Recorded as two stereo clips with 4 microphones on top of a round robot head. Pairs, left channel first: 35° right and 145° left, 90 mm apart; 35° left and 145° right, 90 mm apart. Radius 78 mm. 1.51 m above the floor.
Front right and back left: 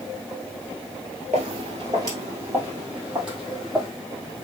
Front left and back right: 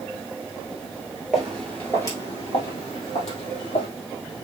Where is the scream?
I don't hear a scream.